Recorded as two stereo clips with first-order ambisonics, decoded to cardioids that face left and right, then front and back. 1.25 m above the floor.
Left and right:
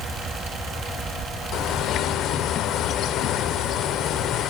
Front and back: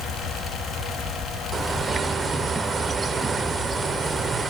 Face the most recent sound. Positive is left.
turn(degrees=110)